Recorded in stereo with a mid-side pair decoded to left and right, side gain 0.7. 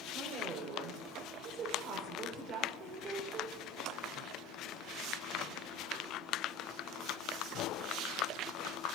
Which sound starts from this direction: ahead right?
A woman speaking, at 0.1 s.